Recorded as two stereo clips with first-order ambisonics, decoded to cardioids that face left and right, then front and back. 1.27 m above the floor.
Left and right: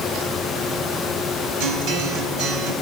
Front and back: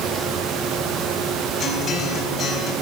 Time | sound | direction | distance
1.6 | a guitar | 65° right | 5 m